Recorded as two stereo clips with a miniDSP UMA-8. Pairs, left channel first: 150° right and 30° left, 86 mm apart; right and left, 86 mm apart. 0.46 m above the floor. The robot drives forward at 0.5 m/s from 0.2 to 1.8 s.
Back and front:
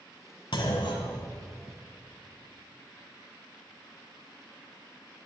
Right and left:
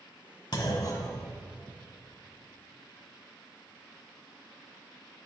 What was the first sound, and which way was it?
A clunk, 130° right.